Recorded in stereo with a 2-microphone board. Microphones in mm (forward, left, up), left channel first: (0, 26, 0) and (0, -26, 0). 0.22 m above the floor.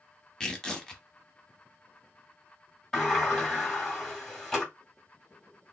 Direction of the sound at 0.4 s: 10° left (ahead or behind).